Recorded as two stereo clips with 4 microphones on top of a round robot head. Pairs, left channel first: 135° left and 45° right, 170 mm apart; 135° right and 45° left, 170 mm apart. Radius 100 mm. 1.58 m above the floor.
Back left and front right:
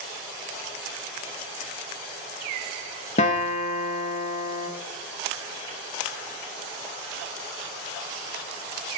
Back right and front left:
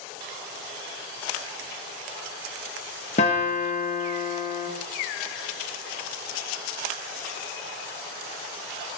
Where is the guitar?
Straight behind, 0.9 m.